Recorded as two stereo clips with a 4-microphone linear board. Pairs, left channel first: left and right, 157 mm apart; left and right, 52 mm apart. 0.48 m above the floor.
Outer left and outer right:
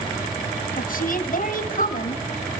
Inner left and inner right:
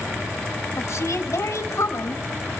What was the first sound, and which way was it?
A woman speaking, 65° left (ahead or behind).